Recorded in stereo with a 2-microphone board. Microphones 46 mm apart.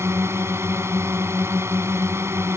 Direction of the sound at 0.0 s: 65° right (ahead or behind).